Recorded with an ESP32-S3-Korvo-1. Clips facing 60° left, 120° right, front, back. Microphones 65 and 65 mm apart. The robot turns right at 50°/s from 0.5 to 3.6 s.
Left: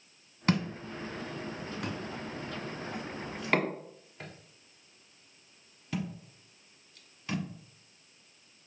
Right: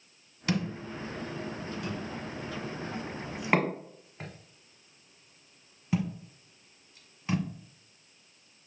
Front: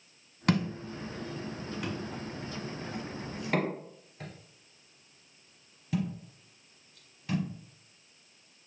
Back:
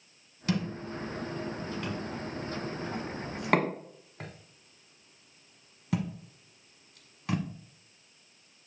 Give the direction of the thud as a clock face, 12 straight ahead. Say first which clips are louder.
Left 1 dB, front 3 dB; 11 o'clock.